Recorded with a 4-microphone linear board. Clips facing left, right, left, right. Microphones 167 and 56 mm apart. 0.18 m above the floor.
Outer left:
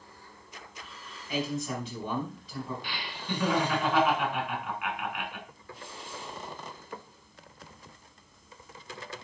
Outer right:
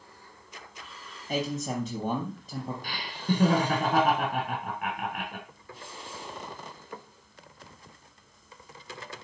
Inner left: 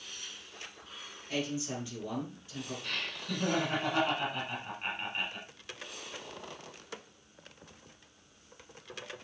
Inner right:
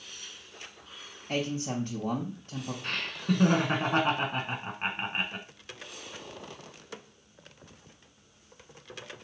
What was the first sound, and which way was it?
A man speaking, 50° right (ahead or behind).